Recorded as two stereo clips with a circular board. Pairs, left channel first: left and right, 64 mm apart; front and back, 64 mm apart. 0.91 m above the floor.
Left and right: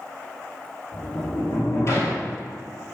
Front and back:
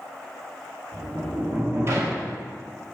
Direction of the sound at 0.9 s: 135° left.